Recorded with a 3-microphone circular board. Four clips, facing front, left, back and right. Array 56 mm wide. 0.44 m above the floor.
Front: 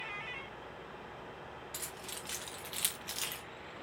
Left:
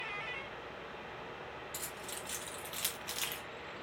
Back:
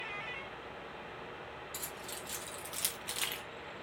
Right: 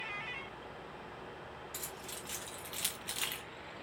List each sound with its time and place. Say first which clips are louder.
1.7 s keys jangling: left 2 dB, back 1 dB; 5° left, 1.7 m; by 3.4 s 160° right, 0.8 m